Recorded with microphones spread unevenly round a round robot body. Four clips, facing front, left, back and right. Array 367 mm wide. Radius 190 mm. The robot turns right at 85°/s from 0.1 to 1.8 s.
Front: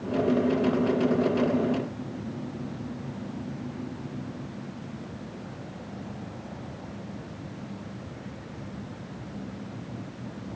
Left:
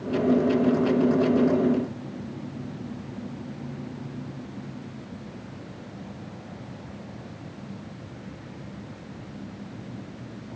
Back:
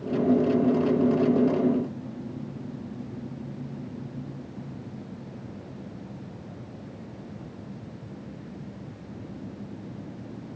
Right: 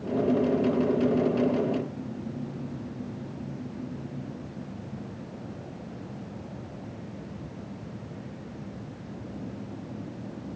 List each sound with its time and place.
Only background noise.